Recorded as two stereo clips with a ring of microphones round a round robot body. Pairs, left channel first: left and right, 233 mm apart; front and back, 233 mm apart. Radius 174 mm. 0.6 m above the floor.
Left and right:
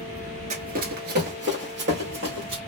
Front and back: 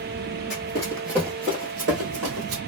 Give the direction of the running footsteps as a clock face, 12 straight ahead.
2 o'clock.